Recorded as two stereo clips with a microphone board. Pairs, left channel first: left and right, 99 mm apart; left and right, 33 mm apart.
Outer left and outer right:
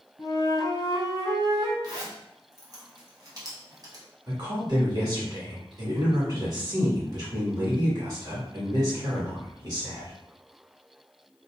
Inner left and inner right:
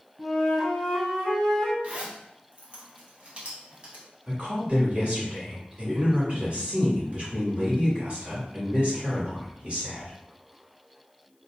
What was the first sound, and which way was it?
A flute, 30° left (ahead or behind).